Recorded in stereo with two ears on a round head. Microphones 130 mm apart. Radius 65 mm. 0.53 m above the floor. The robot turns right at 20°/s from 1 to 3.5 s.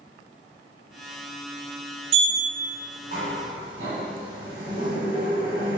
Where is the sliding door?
45° right (ahead or behind), 0.8 m; by 5.8 s 60° right (ahead or behind), 0.8 m.